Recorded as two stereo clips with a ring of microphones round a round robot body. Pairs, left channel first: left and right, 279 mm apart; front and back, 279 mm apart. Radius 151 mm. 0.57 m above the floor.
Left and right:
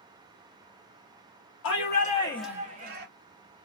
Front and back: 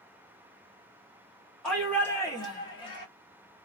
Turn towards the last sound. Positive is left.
turn(degrees=-65)